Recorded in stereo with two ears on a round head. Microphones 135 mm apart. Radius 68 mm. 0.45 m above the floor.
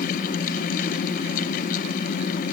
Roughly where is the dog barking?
I don't hear a dog barking.